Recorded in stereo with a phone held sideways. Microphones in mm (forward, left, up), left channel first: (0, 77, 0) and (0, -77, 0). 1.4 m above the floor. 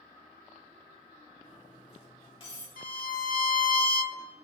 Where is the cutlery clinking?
35° left (ahead or behind), 2 m.